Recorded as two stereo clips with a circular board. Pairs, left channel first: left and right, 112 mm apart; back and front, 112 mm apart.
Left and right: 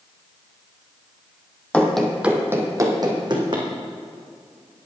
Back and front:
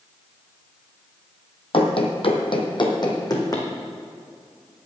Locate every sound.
1.7 s running footsteps: 165° left, 1.5 m; by 3.7 s 125° right, 2.5 m